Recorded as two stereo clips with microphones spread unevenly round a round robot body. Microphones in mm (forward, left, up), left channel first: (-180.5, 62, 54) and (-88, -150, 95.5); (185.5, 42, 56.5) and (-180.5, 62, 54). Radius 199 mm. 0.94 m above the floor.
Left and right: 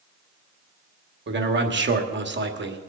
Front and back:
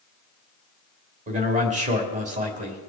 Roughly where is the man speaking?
Right.